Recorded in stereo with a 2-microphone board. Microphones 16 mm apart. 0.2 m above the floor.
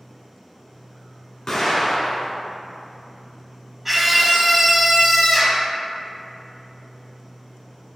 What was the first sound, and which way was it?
An explosion, 50° left (ahead or behind).